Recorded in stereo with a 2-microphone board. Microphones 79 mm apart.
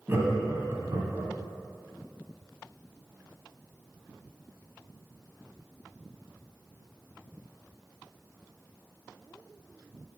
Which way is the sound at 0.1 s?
25° right (ahead or behind).